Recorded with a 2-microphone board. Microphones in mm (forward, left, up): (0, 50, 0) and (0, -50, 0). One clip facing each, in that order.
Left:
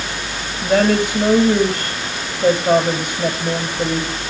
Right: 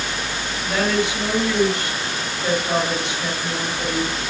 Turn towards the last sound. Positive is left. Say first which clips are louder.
# left 6 dB
turn(degrees=45)  # may be behind; listen again after turning